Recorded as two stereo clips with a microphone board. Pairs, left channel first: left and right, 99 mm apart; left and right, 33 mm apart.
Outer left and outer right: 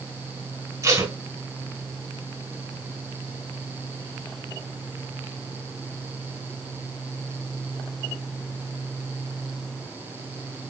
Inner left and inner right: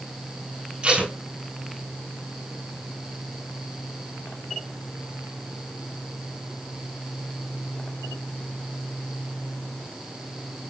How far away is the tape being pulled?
About 5.5 m.